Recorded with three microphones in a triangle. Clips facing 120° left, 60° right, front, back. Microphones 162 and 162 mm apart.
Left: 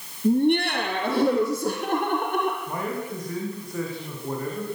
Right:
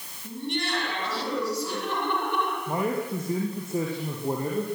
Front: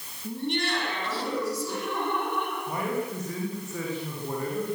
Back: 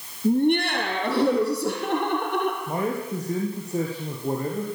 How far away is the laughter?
About 5.5 m.